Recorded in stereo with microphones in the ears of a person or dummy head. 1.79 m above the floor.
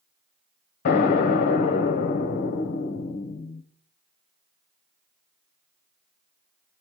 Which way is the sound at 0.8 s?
55° left (ahead or behind).